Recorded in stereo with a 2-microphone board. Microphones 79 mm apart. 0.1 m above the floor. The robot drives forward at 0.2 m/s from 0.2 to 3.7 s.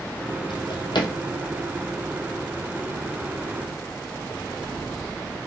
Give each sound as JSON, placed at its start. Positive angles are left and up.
{"t": 0.5, "sound": "a drawer", "side_deg": 70, "distance_m": 0.8}